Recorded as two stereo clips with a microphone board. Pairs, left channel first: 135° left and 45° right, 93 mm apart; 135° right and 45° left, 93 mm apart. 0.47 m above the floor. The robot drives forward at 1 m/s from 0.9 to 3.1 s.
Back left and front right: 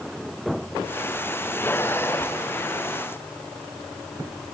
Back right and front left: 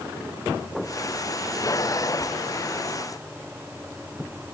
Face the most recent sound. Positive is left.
No sound to turn to.